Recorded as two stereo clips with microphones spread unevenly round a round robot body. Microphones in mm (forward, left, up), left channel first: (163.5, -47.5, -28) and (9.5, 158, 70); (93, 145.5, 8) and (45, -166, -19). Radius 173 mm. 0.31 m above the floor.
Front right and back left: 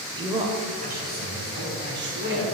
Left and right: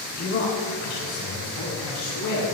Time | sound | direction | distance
0.2 | a man speaking | 35° left | 1.6 m